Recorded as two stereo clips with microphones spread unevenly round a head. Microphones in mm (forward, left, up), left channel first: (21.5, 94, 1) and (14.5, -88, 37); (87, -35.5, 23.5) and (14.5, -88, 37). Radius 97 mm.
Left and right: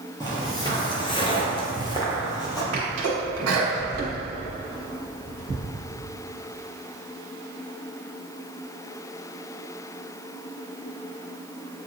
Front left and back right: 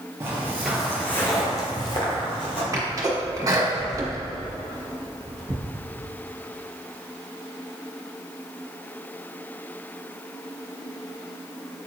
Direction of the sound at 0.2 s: 170° left.